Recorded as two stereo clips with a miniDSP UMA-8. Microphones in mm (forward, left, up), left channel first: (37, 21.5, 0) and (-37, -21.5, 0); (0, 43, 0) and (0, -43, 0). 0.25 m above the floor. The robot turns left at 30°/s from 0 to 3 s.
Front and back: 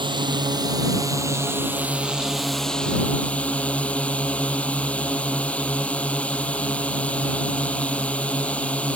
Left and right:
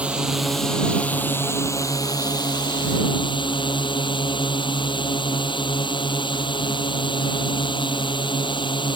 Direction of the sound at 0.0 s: 165° right.